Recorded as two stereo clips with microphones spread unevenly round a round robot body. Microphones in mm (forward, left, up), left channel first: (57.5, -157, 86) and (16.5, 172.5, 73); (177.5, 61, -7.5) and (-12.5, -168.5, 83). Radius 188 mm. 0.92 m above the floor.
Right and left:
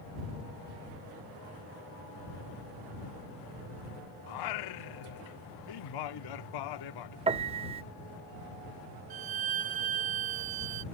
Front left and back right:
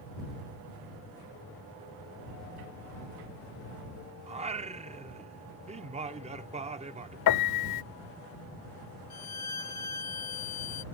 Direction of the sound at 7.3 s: 25° left.